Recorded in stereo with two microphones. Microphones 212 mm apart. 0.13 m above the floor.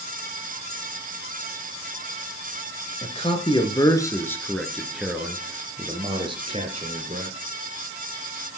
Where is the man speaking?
30° left (ahead or behind), 2.5 m; by 7.4 s 35° right (ahead or behind), 3 m.